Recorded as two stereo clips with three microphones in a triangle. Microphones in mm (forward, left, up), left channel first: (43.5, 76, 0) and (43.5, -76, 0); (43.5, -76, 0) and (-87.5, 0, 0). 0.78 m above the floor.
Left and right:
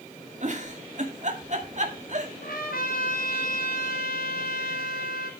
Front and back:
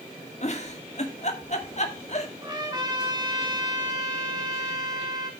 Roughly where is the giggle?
Ahead right.